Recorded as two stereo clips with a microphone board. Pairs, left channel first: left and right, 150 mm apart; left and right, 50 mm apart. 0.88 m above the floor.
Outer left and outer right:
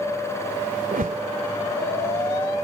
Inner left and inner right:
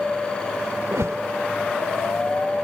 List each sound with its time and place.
0.9 s a whoosh: 75° right (ahead or behind)